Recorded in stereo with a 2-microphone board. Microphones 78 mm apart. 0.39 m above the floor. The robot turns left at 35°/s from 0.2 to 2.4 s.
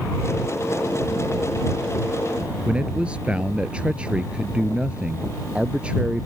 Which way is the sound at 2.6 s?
15° right (ahead or behind).